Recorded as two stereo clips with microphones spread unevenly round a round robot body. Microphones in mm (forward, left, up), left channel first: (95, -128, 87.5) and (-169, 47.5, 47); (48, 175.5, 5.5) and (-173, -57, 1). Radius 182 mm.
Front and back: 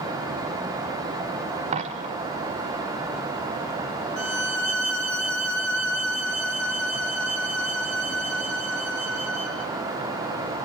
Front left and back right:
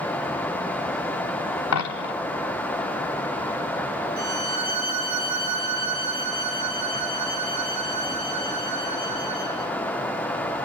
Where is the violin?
120° right, 2.5 m.